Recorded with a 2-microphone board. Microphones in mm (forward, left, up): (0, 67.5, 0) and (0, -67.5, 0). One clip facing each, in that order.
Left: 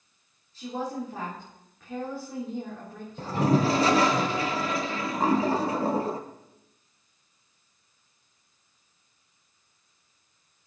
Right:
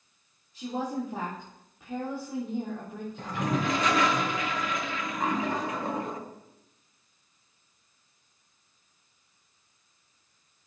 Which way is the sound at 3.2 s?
35° left (ahead or behind).